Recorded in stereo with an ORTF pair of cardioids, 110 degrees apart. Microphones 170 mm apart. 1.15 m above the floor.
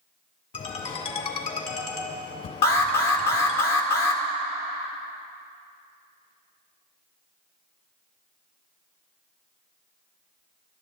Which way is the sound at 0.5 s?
50° left.